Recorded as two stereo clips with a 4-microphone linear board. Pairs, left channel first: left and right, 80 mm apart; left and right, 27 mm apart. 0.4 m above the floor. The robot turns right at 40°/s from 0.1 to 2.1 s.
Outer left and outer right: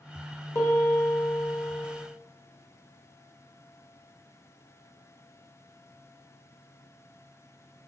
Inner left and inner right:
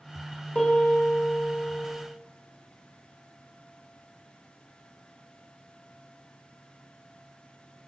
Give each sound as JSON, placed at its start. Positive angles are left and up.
{"t": 0.6, "sound": "a piano", "azimuth_deg": 80, "distance_m": 1.0}